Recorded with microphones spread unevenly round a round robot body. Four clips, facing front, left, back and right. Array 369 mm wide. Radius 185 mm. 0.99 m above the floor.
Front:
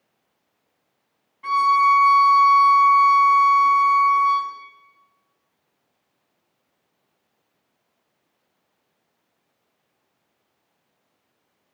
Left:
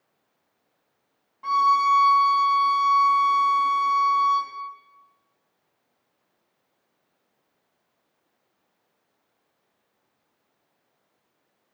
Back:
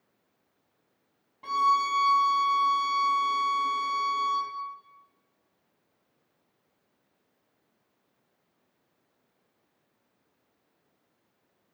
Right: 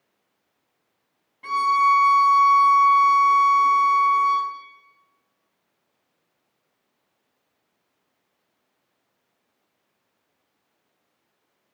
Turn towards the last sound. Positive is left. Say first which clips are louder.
# even, front 8 dB
turn(degrees=-155)